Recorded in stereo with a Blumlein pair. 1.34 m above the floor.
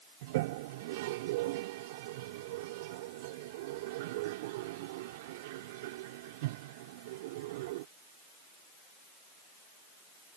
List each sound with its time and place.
0.2 s a toilet flushing: 50° right